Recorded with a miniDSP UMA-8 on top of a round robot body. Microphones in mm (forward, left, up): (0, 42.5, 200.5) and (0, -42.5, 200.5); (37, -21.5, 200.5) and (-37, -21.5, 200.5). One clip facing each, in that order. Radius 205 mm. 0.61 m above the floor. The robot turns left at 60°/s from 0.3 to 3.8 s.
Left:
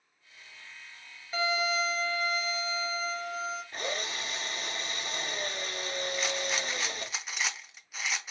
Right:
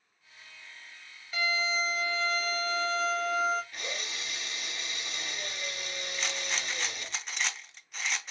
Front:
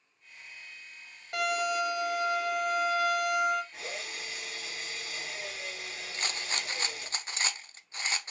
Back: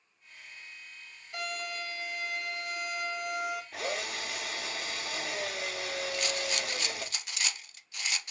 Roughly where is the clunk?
I don't hear a clunk.